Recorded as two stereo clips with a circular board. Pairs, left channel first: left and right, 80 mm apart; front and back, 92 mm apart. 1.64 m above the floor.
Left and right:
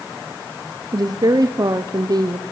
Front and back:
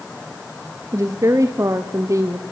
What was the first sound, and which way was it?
A woman speaking, 125° right.